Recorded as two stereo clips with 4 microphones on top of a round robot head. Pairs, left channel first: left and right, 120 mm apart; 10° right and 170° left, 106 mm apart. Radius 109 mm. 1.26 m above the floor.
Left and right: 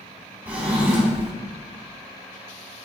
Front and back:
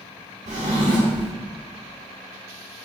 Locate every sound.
0.5 s a drawer: 165° right, 0.7 m